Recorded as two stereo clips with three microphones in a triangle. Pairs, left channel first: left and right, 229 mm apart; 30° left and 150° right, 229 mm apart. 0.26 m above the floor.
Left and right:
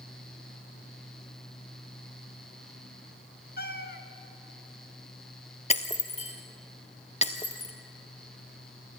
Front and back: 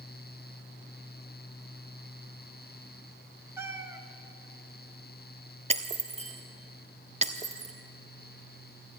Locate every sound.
3.6 s a cat meowing: 130° left, 1.4 m
5.7 s breaking glass: 150° left, 1.4 m